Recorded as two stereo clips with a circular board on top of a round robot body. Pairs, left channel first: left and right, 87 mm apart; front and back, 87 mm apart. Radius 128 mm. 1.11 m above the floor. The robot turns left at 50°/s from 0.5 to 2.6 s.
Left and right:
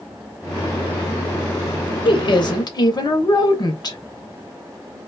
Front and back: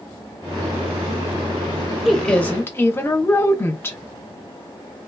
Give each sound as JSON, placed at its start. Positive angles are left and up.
{"t": 2.0, "sound": "a woman speaking", "azimuth_deg": 90, "distance_m": 0.8}